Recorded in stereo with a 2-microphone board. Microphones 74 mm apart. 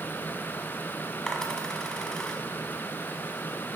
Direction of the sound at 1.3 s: 10° left (ahead or behind).